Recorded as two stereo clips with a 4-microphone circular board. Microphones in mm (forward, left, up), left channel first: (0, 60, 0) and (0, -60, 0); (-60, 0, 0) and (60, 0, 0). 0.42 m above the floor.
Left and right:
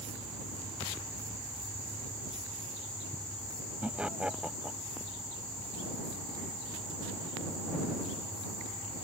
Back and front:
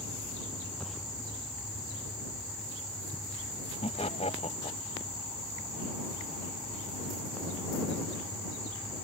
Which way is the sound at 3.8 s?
170° right.